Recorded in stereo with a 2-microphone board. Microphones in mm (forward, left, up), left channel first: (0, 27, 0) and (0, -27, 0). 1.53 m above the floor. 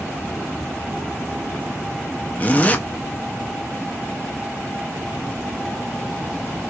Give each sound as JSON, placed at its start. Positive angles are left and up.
{"t": 2.4, "sound": "a zipper", "side_deg": 30, "distance_m": 0.5}